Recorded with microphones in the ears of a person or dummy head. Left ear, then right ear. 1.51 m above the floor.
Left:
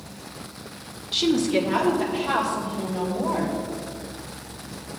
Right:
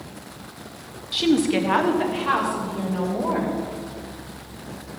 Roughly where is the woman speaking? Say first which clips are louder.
Right 1 dB; centre.